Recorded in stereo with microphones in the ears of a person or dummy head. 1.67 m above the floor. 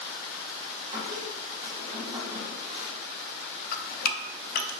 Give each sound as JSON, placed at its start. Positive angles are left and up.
{"t": 0.9, "sound": "a squeak", "side_deg": -20, "distance_m": 1.7}
{"t": 3.7, "sound": "dripping", "side_deg": 55, "distance_m": 0.5}